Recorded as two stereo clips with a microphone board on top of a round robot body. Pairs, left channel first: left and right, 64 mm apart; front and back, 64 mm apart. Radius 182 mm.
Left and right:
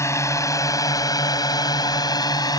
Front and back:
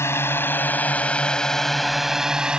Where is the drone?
45° left; by 2.6 s 105° left.